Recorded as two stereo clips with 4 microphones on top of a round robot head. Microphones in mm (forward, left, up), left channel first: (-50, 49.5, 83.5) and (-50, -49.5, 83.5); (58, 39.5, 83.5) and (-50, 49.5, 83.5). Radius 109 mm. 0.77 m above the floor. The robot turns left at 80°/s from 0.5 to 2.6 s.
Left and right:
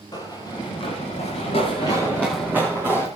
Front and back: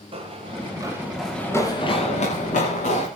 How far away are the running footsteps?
About 8.5 m.